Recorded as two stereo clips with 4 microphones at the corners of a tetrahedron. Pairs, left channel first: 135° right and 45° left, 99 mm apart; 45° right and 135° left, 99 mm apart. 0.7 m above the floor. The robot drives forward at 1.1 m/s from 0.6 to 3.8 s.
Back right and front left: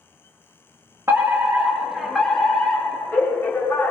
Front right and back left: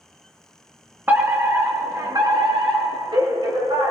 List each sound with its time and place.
1.1 s a fire alarm: 80° left, 1.7 m; by 3.9 s 160° left, 3.5 m